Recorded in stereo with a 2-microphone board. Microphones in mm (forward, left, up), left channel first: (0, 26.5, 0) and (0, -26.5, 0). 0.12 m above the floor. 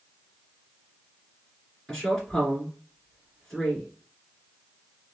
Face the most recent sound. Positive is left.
turn(degrees=10)  # may be behind; listen again after turning